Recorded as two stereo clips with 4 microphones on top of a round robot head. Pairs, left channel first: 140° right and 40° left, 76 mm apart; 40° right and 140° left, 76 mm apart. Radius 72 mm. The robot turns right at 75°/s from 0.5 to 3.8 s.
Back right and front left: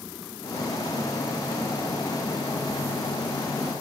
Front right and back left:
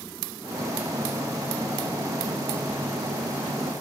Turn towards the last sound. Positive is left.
No sound to turn to.